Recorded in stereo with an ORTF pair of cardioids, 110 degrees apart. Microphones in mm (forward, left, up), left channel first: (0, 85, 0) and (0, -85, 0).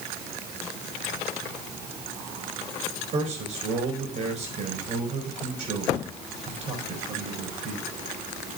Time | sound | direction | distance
3.1 | a man speaking | 50° right | 4.5 m